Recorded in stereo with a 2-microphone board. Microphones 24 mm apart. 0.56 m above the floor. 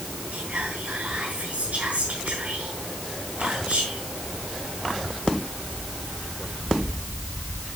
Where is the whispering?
75° right (ahead or behind), 3.5 m.